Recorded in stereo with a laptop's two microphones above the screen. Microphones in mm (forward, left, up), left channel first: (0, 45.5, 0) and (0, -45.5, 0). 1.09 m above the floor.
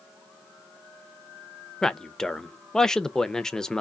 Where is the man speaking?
5° left (ahead or behind), 0.6 m.